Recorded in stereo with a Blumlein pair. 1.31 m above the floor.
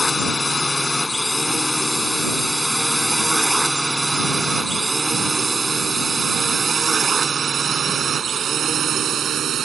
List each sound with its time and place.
0.0 s a drone: 10° left; by 9.7 s 30° right